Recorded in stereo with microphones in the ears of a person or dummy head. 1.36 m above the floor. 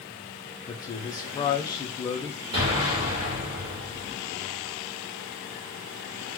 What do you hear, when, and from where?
0.7 s a man speaking: 20° left (ahead or behind), 0.5 m
2.5 s an explosion: 30° right (ahead or behind), 1.2 m